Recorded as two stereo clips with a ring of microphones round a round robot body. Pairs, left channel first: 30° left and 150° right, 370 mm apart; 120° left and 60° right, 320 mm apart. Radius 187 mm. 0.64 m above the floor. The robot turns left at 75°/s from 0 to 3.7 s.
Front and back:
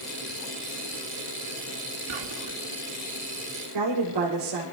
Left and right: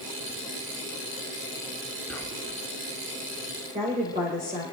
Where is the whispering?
150° right, 1.9 m; by 2.6 s 165° left, 1.9 m.